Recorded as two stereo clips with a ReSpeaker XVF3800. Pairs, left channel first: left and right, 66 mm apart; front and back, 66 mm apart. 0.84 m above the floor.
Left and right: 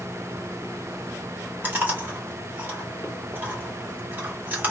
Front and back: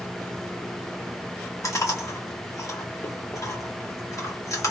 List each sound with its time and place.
1.6 s chewing: 30° right, 2.5 m